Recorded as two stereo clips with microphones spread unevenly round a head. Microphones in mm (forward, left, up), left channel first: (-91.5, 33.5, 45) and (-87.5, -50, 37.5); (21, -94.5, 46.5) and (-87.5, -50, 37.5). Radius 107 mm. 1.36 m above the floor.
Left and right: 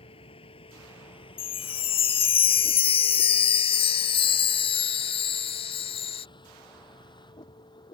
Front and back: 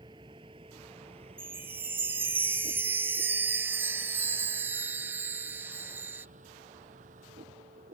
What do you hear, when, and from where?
0.0 s a vehicle: 90° left; by 8.0 s 120° left
1.4 s a chime: 80° left